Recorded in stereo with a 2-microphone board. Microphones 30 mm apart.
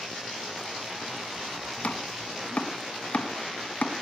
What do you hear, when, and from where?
1.8 s chopping: 45° left (ahead or behind), 1.4 m